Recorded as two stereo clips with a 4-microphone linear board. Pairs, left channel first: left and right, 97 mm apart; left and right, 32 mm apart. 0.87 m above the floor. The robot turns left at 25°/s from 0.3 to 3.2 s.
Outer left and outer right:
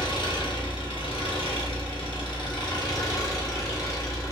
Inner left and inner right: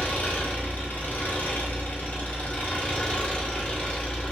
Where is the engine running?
115° left, 0.8 m; by 4.3 s 40° left, 0.8 m.